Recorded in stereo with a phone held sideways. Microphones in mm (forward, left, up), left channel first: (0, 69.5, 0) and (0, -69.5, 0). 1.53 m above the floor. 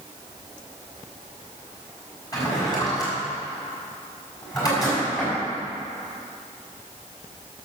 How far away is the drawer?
About 5 m.